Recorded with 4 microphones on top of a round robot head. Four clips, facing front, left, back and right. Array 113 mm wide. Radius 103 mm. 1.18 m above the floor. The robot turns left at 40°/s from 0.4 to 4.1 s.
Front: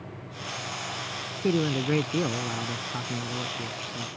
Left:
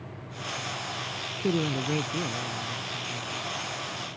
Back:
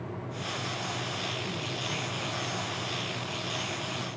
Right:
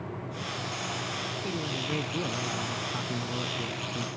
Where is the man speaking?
30° left; by 4.1 s 75° right.